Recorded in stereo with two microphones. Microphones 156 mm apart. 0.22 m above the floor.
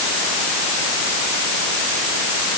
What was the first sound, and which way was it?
Only background noise.